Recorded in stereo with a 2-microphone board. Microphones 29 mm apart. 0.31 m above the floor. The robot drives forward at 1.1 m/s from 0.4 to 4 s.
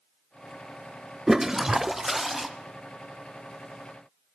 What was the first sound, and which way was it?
A toilet flushing, 10° right (ahead or behind).